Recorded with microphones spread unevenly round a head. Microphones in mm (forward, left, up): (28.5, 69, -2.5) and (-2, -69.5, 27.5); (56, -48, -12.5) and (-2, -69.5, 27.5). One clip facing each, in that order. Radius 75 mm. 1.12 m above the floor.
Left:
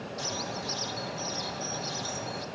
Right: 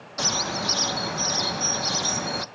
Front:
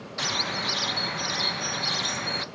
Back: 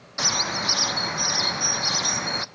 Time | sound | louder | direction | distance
0.2 | a bird | right 9 dB, back 3 dB | 85° right | 0.6 m